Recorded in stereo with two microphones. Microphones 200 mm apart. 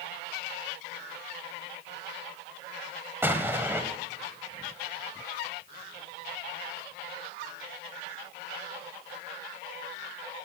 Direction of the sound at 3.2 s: 10° right (ahead or behind).